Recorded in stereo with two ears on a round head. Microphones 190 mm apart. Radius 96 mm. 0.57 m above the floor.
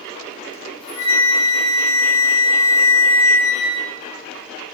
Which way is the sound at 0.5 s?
75° left (ahead or behind).